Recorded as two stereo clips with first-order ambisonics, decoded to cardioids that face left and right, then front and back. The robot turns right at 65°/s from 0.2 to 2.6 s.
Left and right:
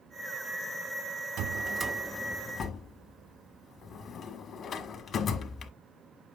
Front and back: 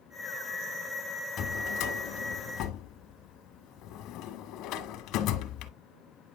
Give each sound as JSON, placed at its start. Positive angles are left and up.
{"t": 1.4, "sound": "a drawer", "azimuth_deg": -50, "distance_m": 1.5}